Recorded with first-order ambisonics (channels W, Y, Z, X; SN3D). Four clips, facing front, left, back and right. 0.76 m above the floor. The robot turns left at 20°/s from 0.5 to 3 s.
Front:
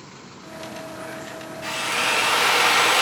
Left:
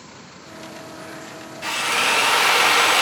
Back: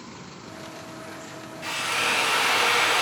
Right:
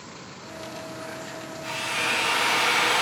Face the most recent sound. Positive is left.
turn(degrees=60)